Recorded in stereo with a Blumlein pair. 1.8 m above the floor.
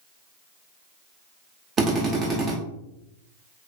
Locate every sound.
1.8 s a drill: 20° right, 0.8 m